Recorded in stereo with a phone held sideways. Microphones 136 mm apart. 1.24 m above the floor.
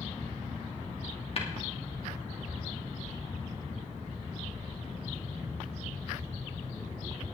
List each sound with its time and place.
1.4 s tapping: 45° left (ahead or behind), 2 m